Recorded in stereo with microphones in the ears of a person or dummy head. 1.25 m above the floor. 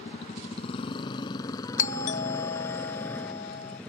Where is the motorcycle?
40° left (ahead or behind); by 3.9 s 5° left (ahead or behind).